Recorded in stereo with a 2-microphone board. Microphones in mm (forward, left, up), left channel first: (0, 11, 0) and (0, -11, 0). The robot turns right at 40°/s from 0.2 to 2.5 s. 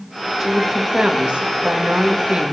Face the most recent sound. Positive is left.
turn(degrees=-75)